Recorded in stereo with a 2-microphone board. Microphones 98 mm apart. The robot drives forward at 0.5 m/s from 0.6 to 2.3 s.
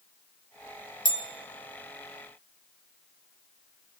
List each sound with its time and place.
1.1 s a bell: 60° left (ahead or behind), 1.7 m; by 1.3 s 55° left (ahead or behind), 1.7 m